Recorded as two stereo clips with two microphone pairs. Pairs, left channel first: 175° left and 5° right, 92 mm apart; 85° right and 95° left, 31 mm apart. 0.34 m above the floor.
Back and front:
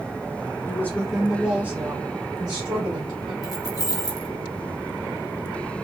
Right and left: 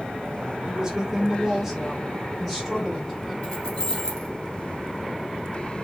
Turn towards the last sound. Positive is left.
turn(degrees=-145)